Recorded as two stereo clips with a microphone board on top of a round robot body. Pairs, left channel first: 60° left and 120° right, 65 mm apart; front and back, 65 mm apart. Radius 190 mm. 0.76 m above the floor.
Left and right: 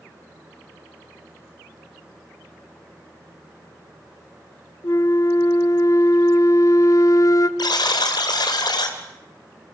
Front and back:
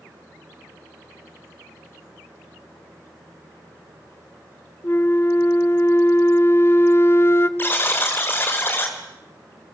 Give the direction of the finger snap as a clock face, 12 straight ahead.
I don't hear a finger snap.